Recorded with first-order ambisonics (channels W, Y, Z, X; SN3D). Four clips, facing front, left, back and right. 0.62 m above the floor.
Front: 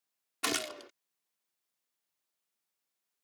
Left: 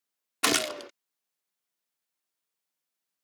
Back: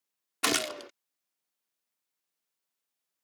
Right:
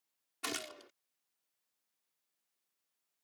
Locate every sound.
0.4 s a gunshot: 115° left